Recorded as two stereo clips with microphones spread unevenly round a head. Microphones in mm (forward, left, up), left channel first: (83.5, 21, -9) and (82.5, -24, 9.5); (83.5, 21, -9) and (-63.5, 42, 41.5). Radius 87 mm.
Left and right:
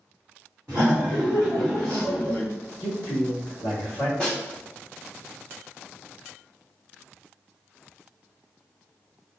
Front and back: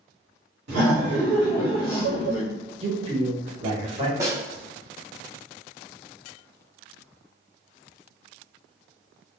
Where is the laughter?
175° right, 1.2 m.